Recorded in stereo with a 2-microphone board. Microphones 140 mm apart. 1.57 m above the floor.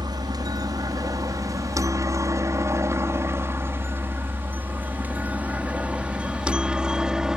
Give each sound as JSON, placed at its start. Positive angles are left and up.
{"t": 0.0, "sound": "a helicopter", "side_deg": -30}